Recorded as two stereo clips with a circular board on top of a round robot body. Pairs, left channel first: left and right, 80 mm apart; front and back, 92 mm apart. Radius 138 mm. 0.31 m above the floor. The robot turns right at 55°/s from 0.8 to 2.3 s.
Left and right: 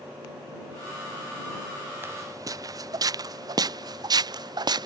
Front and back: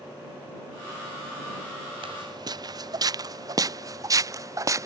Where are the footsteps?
155° right; by 4.9 s 125° right.